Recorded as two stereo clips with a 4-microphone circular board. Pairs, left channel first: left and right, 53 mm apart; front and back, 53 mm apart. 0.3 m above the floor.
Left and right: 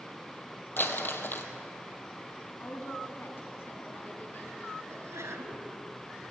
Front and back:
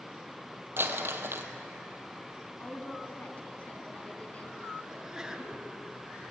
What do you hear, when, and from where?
0.8 s crumpling: 135° left, 1.8 m
2.6 s a woman speaking: 55° left, 3 m
4.9 s a sneeze: 105° right, 3.5 m